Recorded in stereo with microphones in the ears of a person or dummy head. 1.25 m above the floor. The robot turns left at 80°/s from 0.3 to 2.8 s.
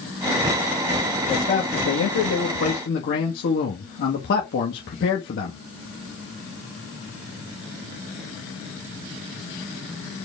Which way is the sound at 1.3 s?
175° left.